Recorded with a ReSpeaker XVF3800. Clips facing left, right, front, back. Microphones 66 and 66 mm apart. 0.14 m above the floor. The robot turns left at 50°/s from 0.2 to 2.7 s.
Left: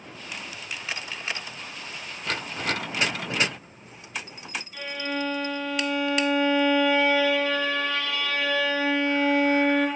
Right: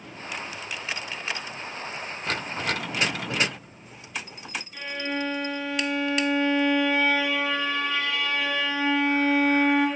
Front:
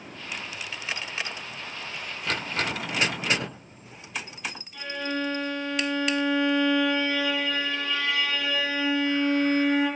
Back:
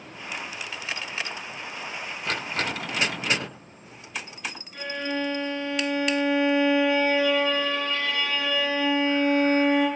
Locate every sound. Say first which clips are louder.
4.7 s a violin: even, back 1 dB; 165° right, 0.9 m